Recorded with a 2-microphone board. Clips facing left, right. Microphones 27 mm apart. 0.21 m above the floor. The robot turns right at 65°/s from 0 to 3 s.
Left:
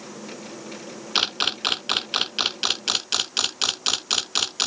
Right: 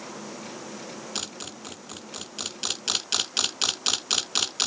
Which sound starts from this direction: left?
A camera shutter, at 1.1 s.